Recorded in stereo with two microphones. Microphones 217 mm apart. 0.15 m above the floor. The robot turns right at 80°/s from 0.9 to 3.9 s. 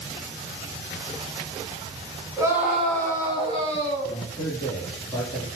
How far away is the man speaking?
About 1.7 m.